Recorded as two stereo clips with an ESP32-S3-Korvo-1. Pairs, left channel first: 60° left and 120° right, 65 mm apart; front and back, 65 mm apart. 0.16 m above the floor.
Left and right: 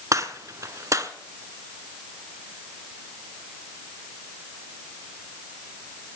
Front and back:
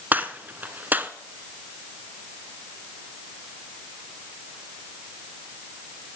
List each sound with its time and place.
0.1 s a gunshot: 125° right, 0.9 m